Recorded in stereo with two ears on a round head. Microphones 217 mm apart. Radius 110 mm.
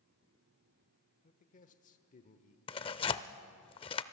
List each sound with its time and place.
1.2 s a man speaking: 35° left (ahead or behind), 1.0 m
2.7 s tearing paper: 25° left (ahead or behind), 0.5 m